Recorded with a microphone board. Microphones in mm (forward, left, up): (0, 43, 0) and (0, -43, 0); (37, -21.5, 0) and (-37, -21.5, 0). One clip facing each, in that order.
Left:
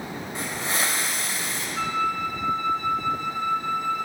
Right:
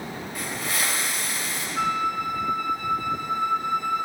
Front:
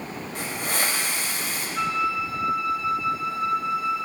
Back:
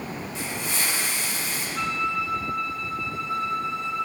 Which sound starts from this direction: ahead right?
A flute, at 1.8 s.